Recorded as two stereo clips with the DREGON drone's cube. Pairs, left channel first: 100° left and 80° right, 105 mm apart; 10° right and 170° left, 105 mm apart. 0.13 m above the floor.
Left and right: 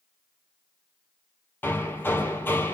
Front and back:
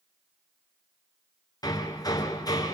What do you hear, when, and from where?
1.6 s hammering: 35° left, 2.5 m